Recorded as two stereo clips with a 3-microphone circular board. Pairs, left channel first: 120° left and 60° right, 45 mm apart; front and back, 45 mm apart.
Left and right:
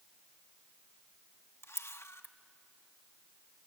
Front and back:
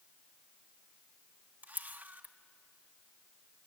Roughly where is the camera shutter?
Behind left.